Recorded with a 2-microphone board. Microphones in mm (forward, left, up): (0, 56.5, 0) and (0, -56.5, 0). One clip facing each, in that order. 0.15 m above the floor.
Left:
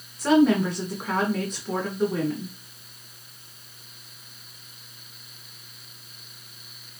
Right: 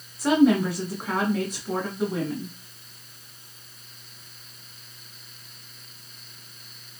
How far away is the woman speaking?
About 1.2 m.